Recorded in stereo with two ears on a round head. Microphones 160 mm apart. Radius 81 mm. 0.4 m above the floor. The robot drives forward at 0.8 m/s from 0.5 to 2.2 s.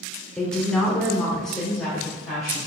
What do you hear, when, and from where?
0.4 s a woman speaking: 5° left (ahead or behind), 0.8 m